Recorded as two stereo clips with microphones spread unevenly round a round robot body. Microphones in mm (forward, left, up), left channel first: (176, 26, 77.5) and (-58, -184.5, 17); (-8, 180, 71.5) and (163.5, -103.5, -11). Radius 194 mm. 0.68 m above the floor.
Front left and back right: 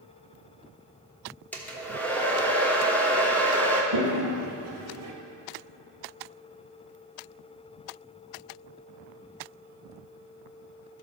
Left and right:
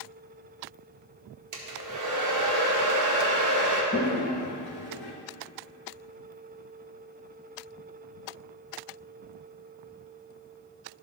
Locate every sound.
1.5 s a hair dryer: 45° right, 1.3 m
3.9 s a toilet flushing: 170° left, 1.1 m